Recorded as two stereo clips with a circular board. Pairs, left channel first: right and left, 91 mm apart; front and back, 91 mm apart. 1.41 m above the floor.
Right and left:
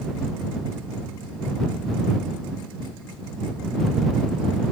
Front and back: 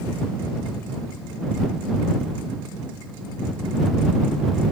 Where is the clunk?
I don't hear a clunk.